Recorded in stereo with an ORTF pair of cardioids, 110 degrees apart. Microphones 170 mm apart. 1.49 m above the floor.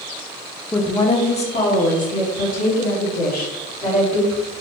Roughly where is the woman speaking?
Ahead.